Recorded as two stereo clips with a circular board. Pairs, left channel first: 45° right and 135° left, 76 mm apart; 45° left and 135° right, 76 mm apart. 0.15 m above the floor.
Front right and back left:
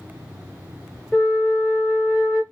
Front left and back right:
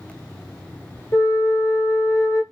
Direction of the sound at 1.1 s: 35° left.